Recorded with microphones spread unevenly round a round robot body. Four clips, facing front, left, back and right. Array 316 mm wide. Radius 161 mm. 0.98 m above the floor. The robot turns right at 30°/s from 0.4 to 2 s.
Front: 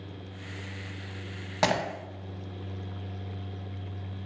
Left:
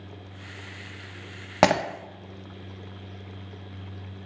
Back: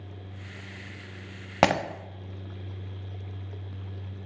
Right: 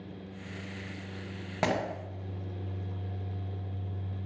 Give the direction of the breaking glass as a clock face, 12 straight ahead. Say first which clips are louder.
Left 9 dB, back 4 dB; 8 o'clock.